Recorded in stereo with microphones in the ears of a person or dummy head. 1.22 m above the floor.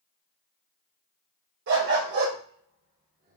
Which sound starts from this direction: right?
A dog barking, at 1.7 s.